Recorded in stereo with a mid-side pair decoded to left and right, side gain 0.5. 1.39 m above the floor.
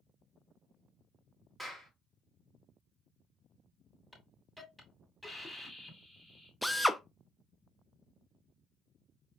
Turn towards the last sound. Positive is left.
turn(degrees=5)